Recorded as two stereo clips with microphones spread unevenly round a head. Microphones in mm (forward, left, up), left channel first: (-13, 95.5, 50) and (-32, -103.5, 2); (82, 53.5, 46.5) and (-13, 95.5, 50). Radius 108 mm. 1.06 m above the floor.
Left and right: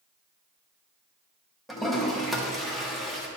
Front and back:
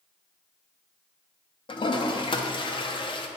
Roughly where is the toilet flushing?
Ahead.